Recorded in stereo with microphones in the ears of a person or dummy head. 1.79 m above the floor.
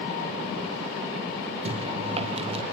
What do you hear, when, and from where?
1.6 s chewing: 35° right (ahead or behind), 2 m